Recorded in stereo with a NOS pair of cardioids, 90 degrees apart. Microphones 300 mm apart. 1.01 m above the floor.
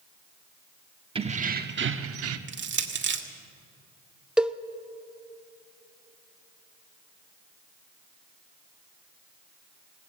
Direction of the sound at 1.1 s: 15° right.